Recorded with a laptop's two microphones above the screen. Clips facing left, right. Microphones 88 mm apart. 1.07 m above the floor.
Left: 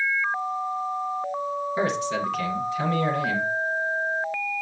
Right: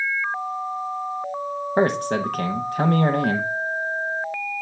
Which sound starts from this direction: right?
A man speaking, at 1.8 s.